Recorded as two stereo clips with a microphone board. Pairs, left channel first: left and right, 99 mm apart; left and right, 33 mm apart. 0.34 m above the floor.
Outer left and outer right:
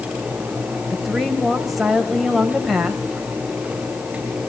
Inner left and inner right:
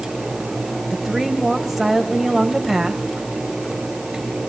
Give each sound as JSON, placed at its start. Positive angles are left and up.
{"t": 0.9, "sound": "a woman speaking", "side_deg": 0, "distance_m": 1.9}